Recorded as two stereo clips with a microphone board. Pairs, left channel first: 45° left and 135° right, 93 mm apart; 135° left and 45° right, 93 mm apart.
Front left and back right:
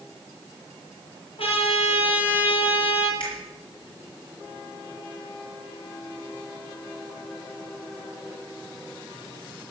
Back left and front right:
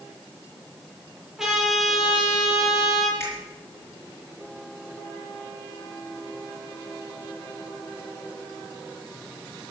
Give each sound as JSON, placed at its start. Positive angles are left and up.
{"t": 1.4, "sound": "a trumpet", "azimuth_deg": 40, "distance_m": 5.5}
{"t": 3.2, "sound": "a finger snap", "azimuth_deg": 75, "distance_m": 7.5}